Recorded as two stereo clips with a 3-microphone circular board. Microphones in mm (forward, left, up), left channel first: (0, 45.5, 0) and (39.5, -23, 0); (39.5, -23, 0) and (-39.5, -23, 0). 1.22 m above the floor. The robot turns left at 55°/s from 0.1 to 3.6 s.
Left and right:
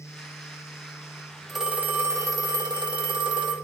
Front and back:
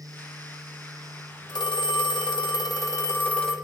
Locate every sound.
1.5 s a phone ringing: 30° left, 1.5 m; by 3.5 s 85° right, 1.5 m